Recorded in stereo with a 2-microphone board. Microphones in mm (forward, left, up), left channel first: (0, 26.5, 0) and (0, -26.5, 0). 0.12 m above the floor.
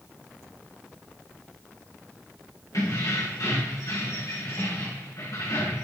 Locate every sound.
2.7 s keys jangling: 80° left, 7 m